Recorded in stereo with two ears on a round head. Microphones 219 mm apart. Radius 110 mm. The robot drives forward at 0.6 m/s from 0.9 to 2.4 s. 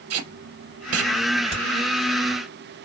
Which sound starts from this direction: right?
Tape being pulled, at 0.1 s.